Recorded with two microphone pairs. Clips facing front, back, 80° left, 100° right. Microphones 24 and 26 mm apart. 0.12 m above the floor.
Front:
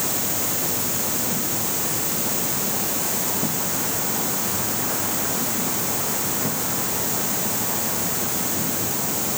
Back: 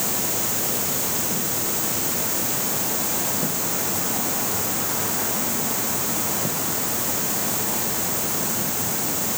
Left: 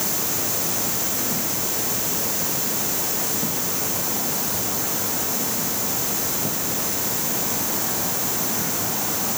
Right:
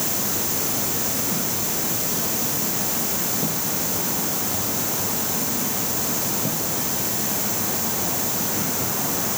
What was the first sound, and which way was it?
Only background noise.